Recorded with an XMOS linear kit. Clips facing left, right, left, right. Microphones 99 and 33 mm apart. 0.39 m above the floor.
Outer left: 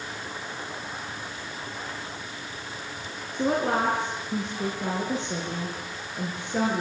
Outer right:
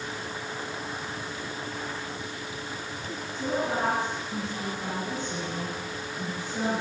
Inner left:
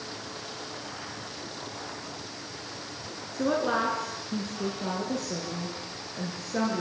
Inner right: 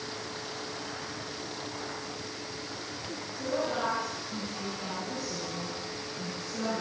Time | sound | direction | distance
3.3 | a woman speaking | 75° left (ahead or behind) | 5.5 m